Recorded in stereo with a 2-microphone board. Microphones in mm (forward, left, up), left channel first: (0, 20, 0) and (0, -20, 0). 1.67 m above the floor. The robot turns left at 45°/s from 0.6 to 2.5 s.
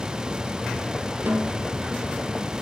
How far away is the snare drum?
About 1.8 m.